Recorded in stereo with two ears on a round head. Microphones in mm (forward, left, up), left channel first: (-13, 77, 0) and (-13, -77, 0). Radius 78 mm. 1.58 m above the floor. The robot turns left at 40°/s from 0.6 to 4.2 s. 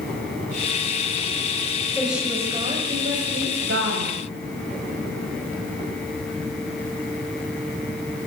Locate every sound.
1.9 s a woman speaking: straight ahead, 7 m; by 4.2 s 90° right, 7 m